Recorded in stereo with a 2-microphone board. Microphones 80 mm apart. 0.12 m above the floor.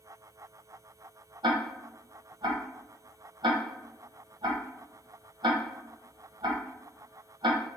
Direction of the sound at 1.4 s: 70° right (ahead or behind).